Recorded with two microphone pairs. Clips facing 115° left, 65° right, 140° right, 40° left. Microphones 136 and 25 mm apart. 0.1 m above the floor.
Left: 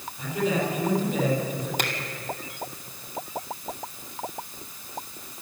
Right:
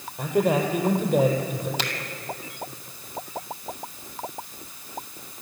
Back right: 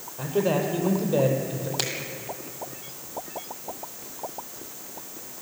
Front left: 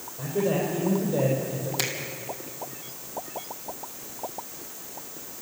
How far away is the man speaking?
About 4.5 m.